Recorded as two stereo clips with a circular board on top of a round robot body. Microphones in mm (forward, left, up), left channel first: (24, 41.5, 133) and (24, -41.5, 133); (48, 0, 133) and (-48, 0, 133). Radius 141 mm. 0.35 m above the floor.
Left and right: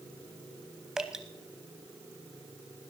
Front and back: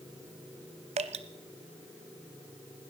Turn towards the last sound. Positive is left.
turn(degrees=-175)